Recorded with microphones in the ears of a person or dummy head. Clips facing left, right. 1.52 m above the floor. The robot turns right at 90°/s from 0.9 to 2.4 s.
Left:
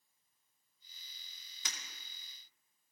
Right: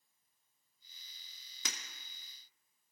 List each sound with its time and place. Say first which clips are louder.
1.6 s breaking glass: right 4 dB; 65° right (ahead or behind), 1.8 m; by 1.8 s 60° right (ahead or behind), 1.8 m